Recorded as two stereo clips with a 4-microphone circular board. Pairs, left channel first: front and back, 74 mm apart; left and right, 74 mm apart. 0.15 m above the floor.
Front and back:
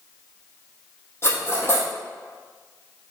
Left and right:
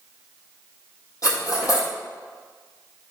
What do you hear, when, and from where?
1.2 s cutlery clinking: 55° left, 3.5 m